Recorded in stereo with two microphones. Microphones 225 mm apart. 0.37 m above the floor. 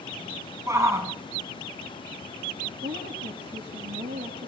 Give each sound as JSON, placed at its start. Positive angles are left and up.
{"t": 0.7, "sound": "a shout", "side_deg": -15, "distance_m": 2.5}
{"t": 2.8, "sound": "a woman speaking", "side_deg": -55, "distance_m": 8.0}